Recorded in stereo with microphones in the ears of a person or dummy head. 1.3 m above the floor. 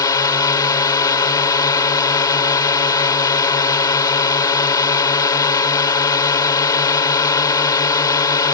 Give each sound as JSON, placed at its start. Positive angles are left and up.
{"t": 0.0, "sound": "a drone", "side_deg": 25}